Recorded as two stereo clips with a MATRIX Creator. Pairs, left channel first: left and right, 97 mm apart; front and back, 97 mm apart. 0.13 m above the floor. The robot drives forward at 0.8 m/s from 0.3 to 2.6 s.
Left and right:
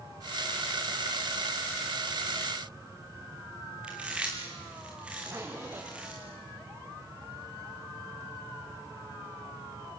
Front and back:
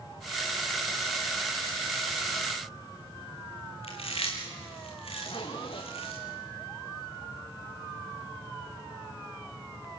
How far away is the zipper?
About 3.5 m.